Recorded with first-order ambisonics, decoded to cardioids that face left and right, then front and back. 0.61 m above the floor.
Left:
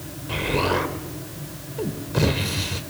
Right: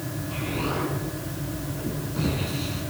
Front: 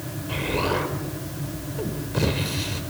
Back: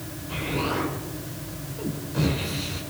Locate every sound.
0.3 s an explosion: 65° left, 3 m